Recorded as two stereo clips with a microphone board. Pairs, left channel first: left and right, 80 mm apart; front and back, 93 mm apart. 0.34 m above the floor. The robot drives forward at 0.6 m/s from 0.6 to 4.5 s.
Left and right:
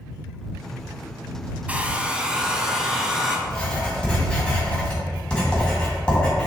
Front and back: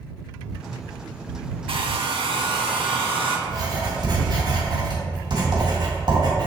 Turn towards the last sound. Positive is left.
turn(degrees=165)